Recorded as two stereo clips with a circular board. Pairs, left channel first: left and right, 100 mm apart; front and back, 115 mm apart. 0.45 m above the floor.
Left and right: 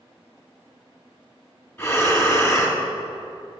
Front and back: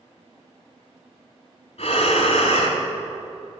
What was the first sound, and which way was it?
Breathing, 30° left.